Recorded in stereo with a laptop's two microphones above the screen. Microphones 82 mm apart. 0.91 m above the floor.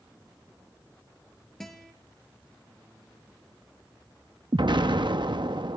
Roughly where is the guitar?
Centre.